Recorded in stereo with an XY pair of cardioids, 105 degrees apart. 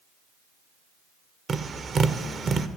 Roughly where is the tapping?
Ahead right.